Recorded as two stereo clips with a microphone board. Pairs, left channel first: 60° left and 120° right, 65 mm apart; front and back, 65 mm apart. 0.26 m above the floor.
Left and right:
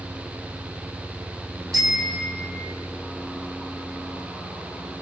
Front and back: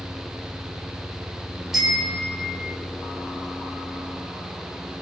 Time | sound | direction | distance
1.7 | a bicycle bell | 95° right | 6.5 m